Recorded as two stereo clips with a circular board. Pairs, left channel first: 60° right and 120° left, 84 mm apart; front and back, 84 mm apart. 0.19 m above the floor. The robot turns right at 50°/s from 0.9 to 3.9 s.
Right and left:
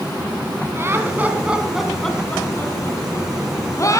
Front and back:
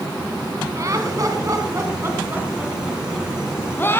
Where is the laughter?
160° left, 1.9 m; by 4.0 s 50° right, 1.9 m.